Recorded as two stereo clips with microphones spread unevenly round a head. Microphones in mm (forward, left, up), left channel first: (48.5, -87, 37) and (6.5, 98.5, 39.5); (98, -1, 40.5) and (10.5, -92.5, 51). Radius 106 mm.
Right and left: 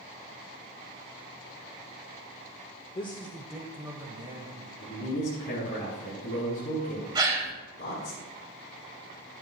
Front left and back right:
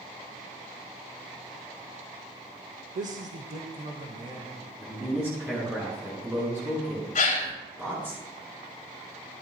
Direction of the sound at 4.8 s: 55° right.